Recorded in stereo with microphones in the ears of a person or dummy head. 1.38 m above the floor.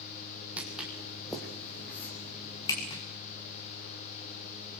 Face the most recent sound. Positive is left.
turn(degrees=25)  # may be behind; listen again after turning